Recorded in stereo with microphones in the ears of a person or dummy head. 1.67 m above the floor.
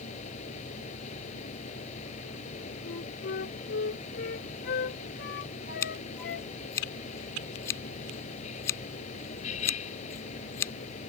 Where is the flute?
60° left (ahead or behind).